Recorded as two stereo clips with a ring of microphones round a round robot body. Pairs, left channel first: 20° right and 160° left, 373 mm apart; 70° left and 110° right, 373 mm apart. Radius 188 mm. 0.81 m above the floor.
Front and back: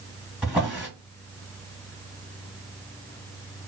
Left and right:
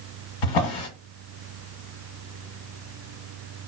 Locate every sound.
0.4 s a drawer: 70° left, 1.5 m